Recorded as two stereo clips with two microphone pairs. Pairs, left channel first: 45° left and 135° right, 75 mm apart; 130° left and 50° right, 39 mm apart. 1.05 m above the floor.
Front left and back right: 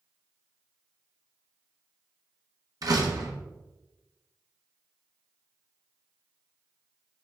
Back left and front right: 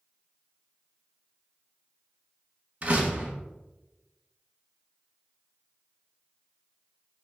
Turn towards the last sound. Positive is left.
turn(degrees=-100)